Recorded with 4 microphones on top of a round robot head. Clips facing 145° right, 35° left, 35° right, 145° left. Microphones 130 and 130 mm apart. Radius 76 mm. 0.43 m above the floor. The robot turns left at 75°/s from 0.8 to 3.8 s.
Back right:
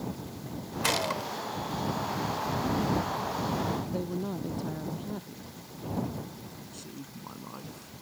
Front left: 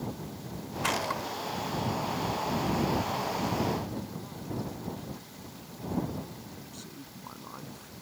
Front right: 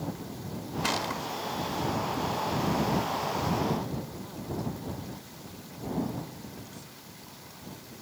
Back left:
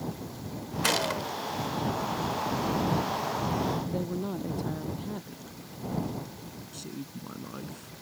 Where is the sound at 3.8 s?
Straight behind.